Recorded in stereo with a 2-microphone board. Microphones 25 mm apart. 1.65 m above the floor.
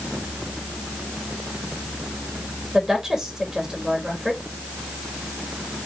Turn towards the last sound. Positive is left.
turn(degrees=-15)  # may be behind; listen again after turning